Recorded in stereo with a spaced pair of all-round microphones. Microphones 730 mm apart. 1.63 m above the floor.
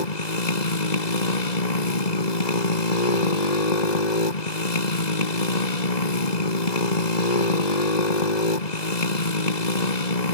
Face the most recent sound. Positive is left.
turn(degrees=70)  # may be behind; listen again after turning